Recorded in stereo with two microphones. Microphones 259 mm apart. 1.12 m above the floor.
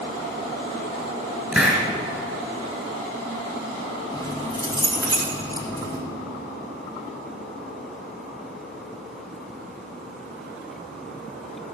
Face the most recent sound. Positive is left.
turn(degrees=15)  # may be behind; listen again after turning